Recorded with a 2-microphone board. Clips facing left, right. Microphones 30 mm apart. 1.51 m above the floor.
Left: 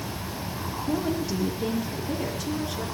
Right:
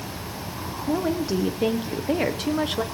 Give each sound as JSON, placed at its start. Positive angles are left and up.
{"t": 0.9, "sound": "a woman speaking", "side_deg": -25, "distance_m": 1.3}